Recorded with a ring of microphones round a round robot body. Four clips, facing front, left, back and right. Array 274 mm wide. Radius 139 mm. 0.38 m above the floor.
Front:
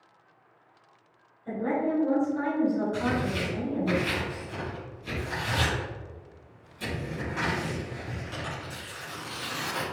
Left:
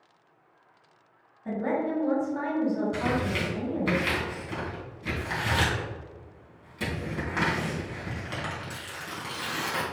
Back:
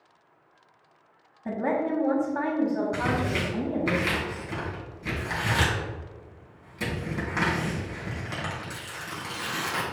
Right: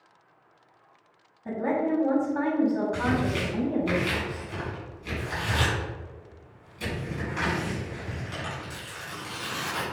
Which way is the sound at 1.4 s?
175° right.